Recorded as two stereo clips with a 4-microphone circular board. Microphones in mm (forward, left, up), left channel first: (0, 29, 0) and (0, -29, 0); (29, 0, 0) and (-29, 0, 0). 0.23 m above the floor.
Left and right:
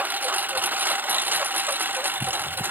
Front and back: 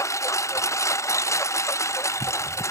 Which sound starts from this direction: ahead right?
A lawn mower, at 0.0 s.